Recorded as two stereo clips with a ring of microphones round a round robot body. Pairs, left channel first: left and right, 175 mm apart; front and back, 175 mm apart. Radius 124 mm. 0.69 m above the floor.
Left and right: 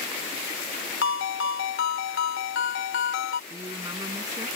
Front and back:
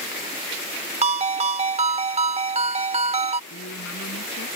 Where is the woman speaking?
20° right.